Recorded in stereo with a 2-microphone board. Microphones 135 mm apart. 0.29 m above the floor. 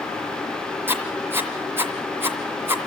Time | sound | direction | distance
0.9 | writing | 15° right (ahead or behind) | 2 m